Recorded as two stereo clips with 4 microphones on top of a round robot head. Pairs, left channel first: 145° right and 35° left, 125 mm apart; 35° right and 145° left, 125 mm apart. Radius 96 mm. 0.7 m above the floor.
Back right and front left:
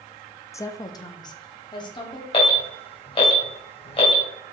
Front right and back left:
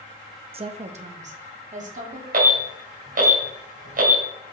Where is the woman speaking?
155° left, 0.8 m; by 2.2 s 160° left, 2 m.